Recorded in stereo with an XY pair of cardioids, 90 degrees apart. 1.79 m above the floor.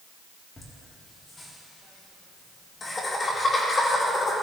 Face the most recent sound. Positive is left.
turn(degrees=45)